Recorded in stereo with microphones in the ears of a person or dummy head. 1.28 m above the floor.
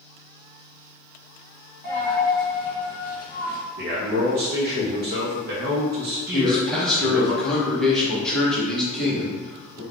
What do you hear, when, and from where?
1.8 s a dropped coin: 25° left (ahead or behind), 1.5 m
3.8 s a man speaking: 45° right (ahead or behind), 0.5 m
6.3 s a man speaking: 5° left (ahead or behind), 0.9 m